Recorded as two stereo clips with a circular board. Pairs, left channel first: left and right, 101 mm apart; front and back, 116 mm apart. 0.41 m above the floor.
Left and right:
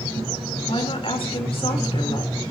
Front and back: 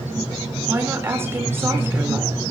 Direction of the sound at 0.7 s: 110° left.